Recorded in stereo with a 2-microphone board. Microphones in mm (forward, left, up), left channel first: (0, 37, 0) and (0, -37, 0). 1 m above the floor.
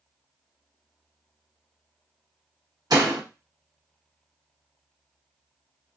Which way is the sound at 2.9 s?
60° right (ahead or behind).